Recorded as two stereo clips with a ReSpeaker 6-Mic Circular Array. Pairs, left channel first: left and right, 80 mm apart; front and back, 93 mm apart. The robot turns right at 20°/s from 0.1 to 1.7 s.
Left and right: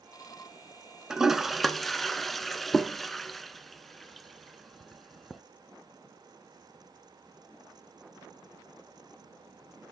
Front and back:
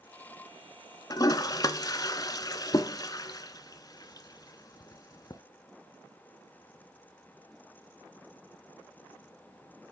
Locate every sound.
1.1 s a toilet flushing: 10° right, 0.9 m; by 5.4 s 5° left, 0.9 m